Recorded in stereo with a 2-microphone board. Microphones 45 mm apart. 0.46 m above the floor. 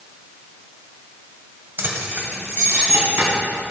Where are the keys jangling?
50° right (ahead or behind), 1.8 m; by 3.3 s 60° right (ahead or behind), 3 m.